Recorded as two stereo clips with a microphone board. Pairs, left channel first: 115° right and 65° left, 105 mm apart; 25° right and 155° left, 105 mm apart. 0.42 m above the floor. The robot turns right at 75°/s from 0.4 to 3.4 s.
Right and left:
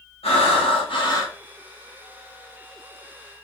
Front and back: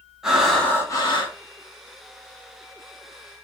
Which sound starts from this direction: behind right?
Breathing, at 0.2 s.